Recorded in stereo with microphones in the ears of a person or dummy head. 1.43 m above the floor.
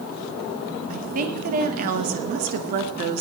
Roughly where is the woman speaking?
Right.